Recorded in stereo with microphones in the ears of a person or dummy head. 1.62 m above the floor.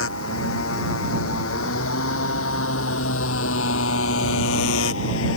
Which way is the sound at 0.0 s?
80° left.